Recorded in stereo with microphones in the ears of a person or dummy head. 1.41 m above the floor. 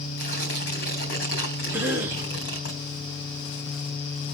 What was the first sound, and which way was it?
Tearing paper, 50° left (ahead or behind).